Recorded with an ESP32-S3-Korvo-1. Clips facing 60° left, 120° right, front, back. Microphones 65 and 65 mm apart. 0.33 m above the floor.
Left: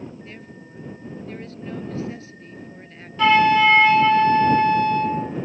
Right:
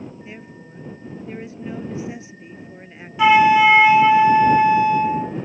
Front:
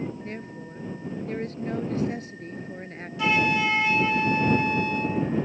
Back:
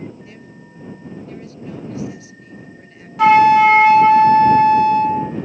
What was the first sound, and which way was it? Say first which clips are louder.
A woman speaking: right 2 dB, front 3 dB; 45° right.